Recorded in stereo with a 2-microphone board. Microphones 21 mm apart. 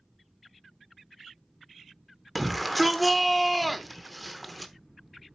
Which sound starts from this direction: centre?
A shout, at 2.4 s.